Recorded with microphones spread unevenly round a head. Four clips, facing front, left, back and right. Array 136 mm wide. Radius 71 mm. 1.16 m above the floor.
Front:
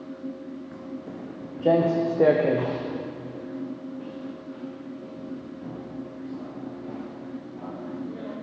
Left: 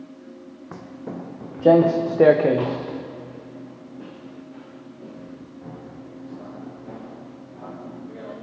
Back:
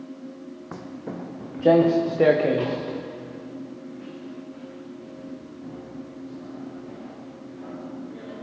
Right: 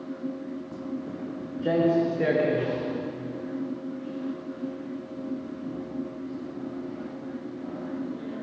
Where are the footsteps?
135° left, 2.5 m; by 8.3 s 60° left, 10.5 m.